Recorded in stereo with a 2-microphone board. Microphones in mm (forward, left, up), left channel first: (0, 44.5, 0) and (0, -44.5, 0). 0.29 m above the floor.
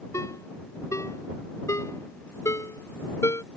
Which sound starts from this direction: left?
A ringtone, at 0.1 s.